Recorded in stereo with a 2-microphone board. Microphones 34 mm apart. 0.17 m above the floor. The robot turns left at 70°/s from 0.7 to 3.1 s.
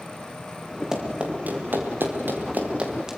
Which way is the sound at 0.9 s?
15° right (ahead or behind).